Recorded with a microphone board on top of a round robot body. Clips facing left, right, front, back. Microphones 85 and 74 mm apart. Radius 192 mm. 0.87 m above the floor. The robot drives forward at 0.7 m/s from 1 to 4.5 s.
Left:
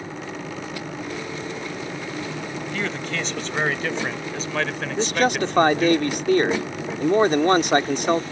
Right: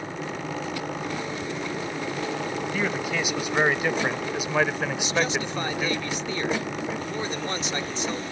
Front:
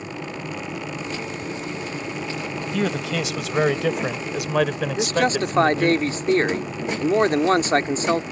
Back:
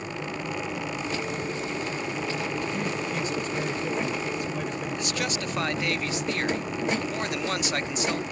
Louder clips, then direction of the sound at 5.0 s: Left 9 dB, front 9 dB; 50° left.